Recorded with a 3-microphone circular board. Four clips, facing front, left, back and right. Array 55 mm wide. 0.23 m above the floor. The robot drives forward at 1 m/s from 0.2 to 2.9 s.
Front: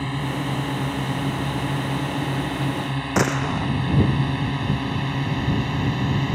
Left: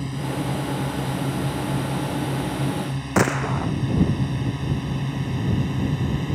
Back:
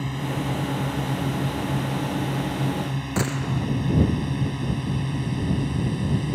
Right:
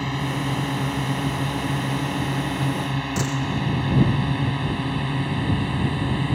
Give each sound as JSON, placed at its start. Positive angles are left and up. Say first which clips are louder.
{"t": 0.0, "sound": "a drone", "louder": "right 2 dB, front 2 dB", "azimuth_deg": -60}
{"t": 3.2, "sound": "a gunshot", "louder": "left 9 dB, front 5 dB", "azimuth_deg": 55}